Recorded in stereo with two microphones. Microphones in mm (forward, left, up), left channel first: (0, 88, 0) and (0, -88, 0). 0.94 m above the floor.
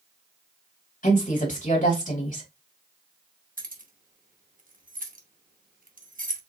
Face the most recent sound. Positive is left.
turn(degrees=-50)  # may be behind; listen again after turning